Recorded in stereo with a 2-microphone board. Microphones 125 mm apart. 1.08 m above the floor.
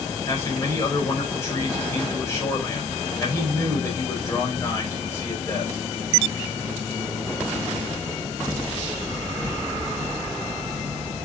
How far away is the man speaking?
About 5 m.